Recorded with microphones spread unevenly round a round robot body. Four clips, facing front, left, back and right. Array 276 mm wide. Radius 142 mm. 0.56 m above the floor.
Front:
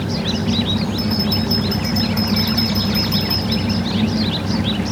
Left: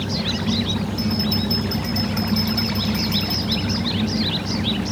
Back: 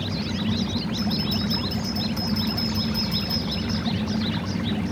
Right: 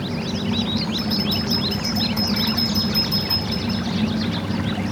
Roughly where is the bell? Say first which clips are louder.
Left 1 dB, front 6 dB; behind right.